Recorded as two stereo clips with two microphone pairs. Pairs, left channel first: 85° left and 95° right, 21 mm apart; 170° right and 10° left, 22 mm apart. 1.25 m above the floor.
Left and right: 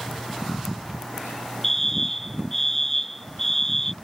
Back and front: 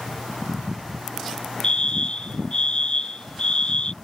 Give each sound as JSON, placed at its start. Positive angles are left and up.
{"t": 1.6, "sound": "a fire alarm", "azimuth_deg": 160}